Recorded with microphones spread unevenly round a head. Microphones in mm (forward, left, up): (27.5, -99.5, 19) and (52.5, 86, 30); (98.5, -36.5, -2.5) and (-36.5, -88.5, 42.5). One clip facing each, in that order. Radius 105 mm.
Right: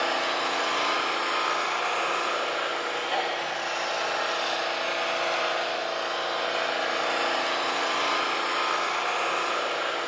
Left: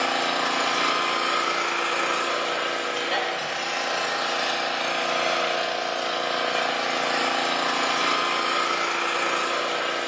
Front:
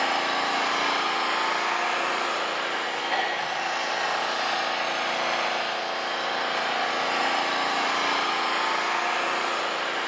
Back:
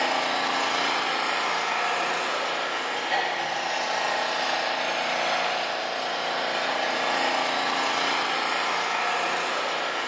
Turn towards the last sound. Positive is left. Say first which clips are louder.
# left 2 dB, even
turn(degrees=135)